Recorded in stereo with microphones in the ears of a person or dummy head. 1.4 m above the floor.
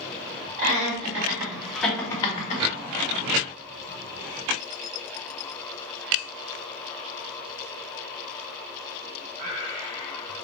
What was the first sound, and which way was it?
Laughter, 40° right (ahead or behind).